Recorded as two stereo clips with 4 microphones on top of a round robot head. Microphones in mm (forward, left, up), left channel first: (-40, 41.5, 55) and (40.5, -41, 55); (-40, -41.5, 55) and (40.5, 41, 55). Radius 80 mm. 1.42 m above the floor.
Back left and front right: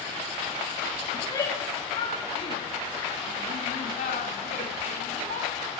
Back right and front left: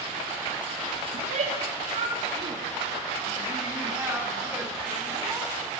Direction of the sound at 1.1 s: 70° left.